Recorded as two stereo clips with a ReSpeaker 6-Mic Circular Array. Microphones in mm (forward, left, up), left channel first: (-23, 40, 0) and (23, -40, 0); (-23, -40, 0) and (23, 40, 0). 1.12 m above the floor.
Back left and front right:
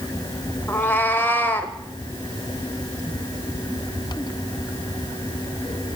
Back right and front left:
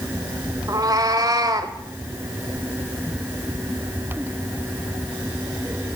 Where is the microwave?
No microwave in this recording.